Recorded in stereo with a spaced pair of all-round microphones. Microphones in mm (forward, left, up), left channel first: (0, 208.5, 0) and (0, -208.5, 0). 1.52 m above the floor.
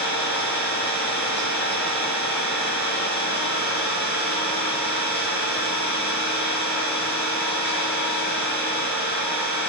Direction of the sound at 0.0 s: 25° left (ahead or behind).